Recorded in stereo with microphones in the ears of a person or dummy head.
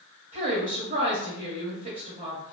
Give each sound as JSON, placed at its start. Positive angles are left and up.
{"t": 0.3, "sound": "a woman speaking", "side_deg": -40, "distance_m": 1.2}